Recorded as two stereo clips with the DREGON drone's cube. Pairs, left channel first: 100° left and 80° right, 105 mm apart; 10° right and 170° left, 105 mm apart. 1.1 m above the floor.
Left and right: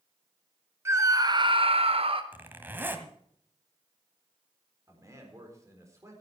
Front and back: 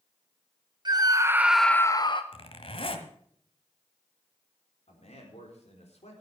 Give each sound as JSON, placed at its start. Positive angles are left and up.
{"t": 0.8, "sound": "a scream", "azimuth_deg": -145, "distance_m": 1.3}
{"t": 2.3, "sound": "a zipper", "azimuth_deg": -10, "distance_m": 1.5}
{"t": 4.9, "sound": "a man speaking", "azimuth_deg": -15, "distance_m": 4.0}